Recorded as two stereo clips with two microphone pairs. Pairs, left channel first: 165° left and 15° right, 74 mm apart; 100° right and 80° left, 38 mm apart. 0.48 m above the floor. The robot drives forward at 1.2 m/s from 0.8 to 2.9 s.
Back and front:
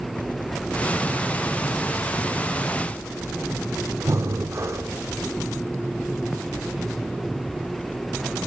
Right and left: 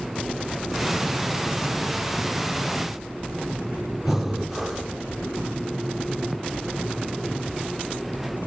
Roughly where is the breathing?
Ahead.